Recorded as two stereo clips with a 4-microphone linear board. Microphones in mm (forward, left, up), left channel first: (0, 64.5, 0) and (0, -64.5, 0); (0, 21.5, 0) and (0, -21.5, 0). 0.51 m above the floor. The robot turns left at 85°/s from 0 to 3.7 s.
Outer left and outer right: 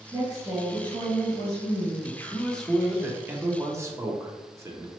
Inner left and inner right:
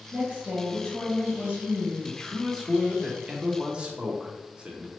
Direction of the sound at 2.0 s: 20° left (ahead or behind).